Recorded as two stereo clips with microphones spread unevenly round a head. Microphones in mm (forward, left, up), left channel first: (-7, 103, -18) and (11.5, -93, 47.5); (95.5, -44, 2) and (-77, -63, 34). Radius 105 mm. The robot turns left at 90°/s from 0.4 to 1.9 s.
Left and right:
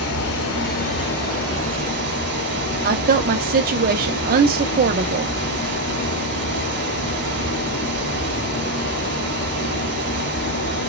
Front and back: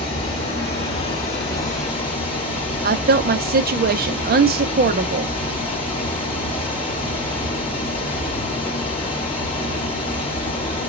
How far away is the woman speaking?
About 0.8 m.